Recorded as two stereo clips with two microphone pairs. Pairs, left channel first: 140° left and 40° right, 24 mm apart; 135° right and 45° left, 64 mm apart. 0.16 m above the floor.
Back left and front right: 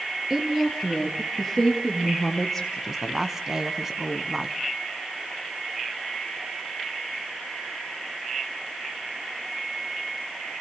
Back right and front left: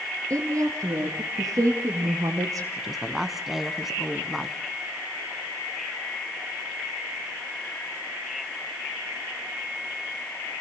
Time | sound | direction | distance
0.3 | a woman speaking | 25° left | 2.5 m
2.8 | a woman speaking | 35° right | 1.2 m